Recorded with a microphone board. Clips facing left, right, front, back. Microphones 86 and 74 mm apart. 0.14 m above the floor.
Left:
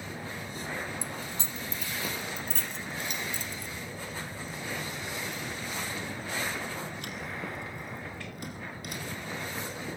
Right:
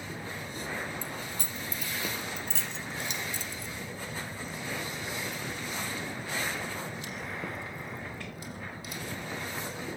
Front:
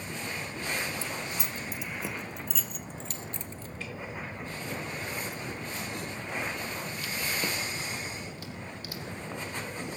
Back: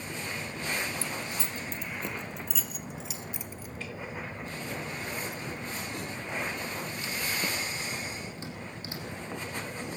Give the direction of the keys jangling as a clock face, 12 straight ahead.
11 o'clock.